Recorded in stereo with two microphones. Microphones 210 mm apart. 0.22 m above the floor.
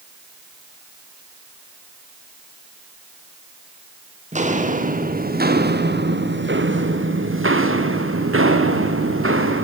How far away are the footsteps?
About 3.5 m.